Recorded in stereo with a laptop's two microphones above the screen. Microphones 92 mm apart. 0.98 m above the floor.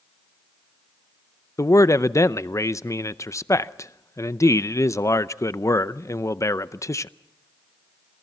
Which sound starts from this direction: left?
A man speaking, at 1.6 s.